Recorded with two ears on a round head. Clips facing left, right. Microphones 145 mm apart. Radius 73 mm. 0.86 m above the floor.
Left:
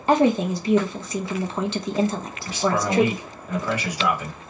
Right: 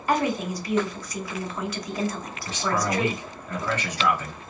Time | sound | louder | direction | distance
0.1 | a woman speaking | left 6 dB | 25° left (ahead or behind) | 0.6 m
2.5 | a man speaking | left 3 dB | 10° left (ahead or behind) | 1.3 m